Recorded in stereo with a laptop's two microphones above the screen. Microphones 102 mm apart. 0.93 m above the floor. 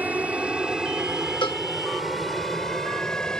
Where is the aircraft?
15° right (ahead or behind); by 3.4 s 5° left (ahead or behind).